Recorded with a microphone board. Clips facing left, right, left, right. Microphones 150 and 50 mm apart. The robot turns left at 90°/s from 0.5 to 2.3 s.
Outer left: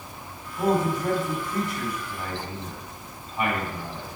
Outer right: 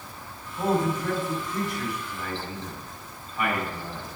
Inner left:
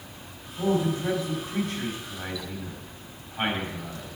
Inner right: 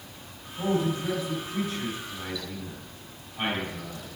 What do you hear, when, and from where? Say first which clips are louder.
0.6 s a man speaking: outer left 1 dB, inner left 2 dB; 5° left (ahead or behind), 3.5 m; by 4.2 s 20° left (ahead or behind), 3.5 m